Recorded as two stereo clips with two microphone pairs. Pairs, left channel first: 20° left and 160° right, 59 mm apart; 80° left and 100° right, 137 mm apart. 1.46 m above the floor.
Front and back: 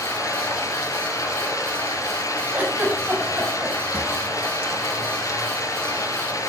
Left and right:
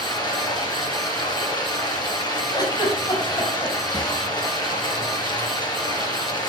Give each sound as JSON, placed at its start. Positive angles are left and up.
{"t": 0.0, "sound": "running water", "azimuth_deg": 25, "distance_m": 5.5}
{"t": 2.5, "sound": "a giggle", "azimuth_deg": 140, "distance_m": 7.0}
{"t": 3.9, "sound": "a drawer", "azimuth_deg": 135, "distance_m": 3.5}